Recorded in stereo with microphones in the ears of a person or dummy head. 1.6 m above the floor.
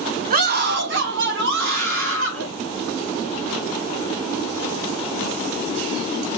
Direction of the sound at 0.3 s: 45° right (ahead or behind).